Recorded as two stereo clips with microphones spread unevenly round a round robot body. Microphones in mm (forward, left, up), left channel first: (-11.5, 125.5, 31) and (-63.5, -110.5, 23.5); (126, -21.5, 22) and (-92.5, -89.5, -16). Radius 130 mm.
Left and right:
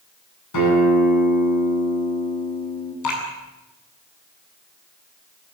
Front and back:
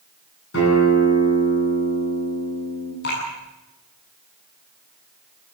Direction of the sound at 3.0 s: 70° left.